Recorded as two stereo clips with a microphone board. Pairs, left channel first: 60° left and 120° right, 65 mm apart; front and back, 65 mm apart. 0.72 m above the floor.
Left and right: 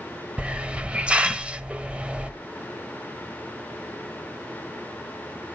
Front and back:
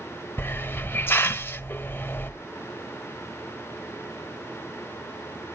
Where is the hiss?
50° right, 0.7 m.